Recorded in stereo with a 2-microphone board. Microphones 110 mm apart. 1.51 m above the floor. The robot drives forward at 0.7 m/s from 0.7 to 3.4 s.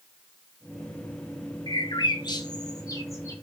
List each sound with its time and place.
1.7 s a bird: 40° left (ahead or behind), 0.8 m; by 3.4 s 25° left (ahead or behind), 1.3 m